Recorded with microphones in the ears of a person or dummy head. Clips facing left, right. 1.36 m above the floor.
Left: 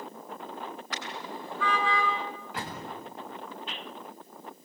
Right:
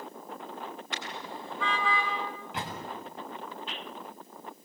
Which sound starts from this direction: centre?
A door slam, at 2.5 s.